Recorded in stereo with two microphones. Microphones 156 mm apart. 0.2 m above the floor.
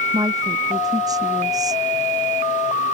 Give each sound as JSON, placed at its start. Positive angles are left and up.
{"t": 0.1, "sound": "a woman speaking", "side_deg": -20}